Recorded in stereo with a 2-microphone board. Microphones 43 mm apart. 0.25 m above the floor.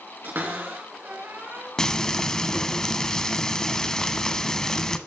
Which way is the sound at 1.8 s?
15° left (ahead or behind).